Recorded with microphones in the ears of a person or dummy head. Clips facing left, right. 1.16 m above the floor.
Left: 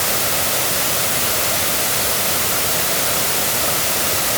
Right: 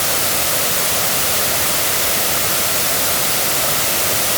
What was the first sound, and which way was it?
Only background noise.